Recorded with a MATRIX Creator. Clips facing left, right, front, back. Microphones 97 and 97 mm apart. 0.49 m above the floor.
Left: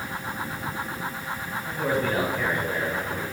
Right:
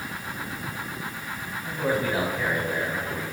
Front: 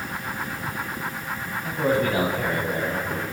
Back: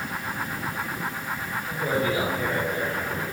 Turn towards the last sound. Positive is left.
turn(degrees=-5)